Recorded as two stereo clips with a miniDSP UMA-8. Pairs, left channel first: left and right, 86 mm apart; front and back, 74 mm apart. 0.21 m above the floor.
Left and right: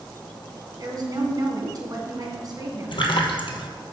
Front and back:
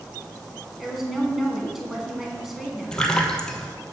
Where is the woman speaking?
95° right, 2 m.